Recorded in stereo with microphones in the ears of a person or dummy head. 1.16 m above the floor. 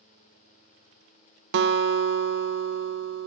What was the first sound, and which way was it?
A guitar, 65° right (ahead or behind).